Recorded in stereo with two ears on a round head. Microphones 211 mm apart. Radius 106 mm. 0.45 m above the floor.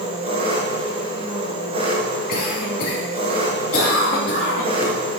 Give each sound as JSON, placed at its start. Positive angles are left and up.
{"t": 0.0, "sound": "an engine running", "side_deg": -25, "distance_m": 1.7}
{"t": 2.3, "sound": "a cough", "side_deg": 45, "distance_m": 3.0}